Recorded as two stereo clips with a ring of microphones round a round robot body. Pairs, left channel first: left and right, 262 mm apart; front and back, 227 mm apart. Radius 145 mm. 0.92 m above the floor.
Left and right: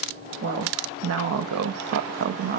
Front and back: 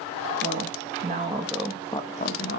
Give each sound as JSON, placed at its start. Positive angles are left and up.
{"t": 0.4, "sound": "a woman speaking", "azimuth_deg": -135, "distance_m": 2.0}